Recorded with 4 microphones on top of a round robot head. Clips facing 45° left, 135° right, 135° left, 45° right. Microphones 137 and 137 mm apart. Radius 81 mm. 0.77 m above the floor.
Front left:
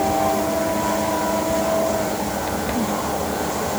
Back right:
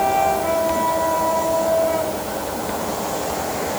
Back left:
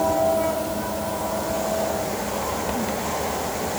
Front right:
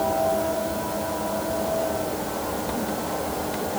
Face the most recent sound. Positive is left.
No sound to turn to.